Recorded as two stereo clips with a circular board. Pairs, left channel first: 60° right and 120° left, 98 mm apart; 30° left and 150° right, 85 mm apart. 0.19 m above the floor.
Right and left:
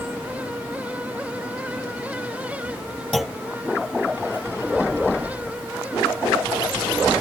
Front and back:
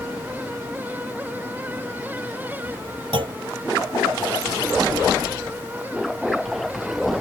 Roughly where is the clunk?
Behind right.